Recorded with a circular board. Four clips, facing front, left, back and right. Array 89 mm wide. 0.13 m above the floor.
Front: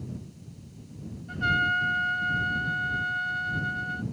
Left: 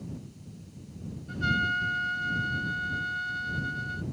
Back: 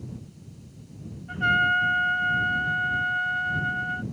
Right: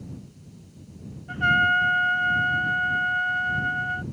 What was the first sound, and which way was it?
A trumpet, 115° right.